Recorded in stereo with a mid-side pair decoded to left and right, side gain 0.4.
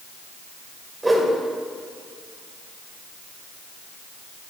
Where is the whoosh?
20° right, 2 m.